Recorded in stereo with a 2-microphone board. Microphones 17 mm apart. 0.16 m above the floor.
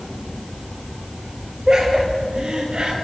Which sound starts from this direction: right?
Laughter, at 1.7 s.